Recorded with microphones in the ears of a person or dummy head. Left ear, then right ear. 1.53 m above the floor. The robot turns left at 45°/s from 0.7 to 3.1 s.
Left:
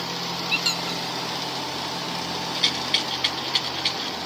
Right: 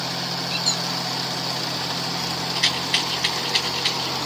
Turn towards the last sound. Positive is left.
turn(degrees=0)  # may be behind; listen again after turning